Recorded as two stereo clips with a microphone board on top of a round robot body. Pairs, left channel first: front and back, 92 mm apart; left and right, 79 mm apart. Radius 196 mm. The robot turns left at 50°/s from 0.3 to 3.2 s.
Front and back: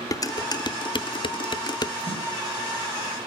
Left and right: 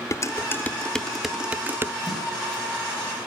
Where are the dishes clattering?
45° left, 0.7 m; by 1.9 s 40° right, 0.7 m.